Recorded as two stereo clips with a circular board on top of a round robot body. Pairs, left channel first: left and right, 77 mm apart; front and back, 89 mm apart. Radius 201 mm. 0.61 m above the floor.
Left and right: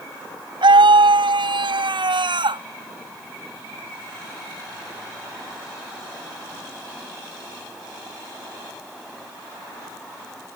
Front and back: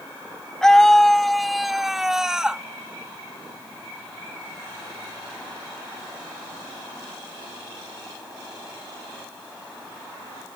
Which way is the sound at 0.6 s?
85° right.